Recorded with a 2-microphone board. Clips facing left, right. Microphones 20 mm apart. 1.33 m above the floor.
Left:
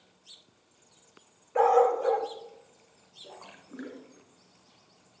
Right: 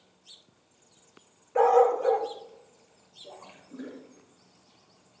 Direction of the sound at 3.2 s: 50° left (ahead or behind).